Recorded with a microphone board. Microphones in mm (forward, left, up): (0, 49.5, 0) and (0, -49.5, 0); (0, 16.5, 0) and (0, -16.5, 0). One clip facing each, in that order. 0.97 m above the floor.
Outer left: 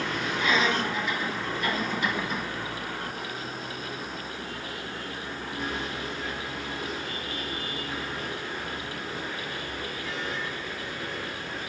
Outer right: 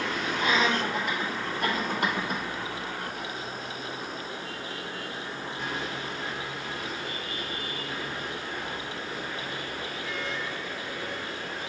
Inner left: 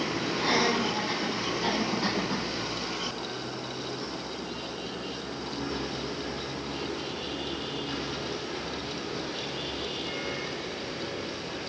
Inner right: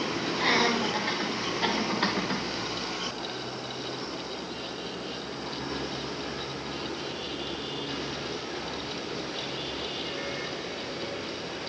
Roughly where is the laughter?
Right.